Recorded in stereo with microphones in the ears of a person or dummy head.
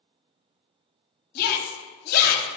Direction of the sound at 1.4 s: 50° left (ahead or behind).